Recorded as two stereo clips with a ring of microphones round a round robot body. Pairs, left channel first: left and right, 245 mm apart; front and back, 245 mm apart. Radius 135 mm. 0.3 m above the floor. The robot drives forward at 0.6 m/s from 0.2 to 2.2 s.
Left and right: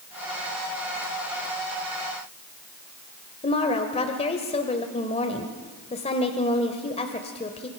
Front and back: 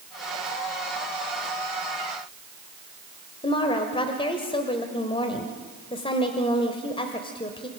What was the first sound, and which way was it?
A woman speaking, 50° left.